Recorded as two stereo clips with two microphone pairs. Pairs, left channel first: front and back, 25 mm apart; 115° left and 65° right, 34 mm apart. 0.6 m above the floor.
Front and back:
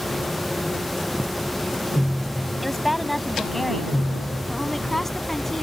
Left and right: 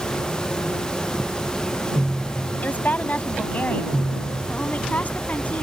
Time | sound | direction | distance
2.6 | a woman speaking | 85° left | ?